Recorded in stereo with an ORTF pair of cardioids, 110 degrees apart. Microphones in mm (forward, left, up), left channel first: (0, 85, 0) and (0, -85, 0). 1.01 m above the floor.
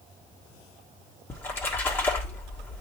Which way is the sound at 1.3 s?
10° left.